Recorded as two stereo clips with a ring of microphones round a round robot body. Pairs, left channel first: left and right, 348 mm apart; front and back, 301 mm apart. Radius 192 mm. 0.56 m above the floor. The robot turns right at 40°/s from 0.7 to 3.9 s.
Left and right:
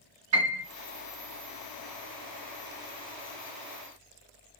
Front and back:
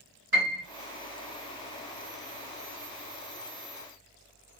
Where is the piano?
145° right, 3.5 m.